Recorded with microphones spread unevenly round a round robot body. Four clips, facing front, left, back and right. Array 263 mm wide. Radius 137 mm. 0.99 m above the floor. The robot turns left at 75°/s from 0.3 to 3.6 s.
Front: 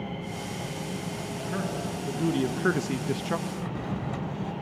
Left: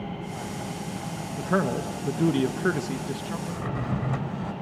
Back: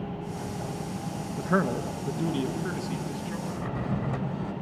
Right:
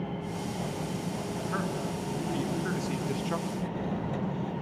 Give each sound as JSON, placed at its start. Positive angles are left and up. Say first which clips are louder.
{"t": 1.4, "sound": "a man speaking", "louder": "left 10 dB, back 7 dB", "azimuth_deg": 140, "distance_m": 1.3}
{"t": 3.5, "sound": "a drawer", "louder": "left 2 dB, back 1 dB", "azimuth_deg": 100, "distance_m": 3.0}